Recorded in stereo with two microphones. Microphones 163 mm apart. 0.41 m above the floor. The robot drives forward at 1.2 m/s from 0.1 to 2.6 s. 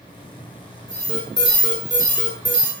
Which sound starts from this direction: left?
An alarm, at 0.9 s.